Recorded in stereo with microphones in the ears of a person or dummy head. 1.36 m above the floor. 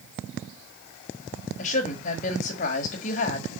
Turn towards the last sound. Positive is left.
turn(degrees=50)  # may be behind; listen again after turning